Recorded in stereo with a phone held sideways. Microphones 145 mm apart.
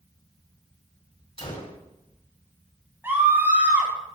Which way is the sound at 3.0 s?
15° right (ahead or behind).